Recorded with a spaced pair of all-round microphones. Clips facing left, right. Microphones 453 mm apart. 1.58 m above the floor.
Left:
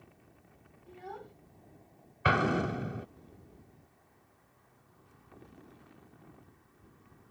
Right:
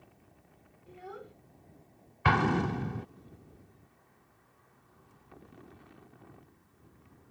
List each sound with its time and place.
0.9 s a child speaking: 10° left (ahead or behind)
2.2 s an explosion: 10° right (ahead or behind)